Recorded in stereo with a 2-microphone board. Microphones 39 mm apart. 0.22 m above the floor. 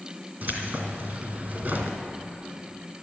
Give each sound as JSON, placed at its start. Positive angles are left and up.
{"t": 0.4, "sound": "keys jangling", "side_deg": -50, "distance_m": 2.0}